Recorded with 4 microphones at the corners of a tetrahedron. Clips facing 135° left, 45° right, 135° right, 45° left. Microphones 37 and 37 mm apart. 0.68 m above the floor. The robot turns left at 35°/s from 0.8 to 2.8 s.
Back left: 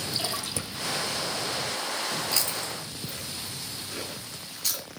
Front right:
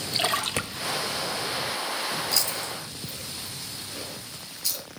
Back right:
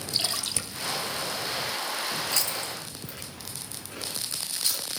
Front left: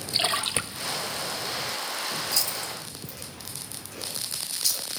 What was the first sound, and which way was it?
A splash, 10° right.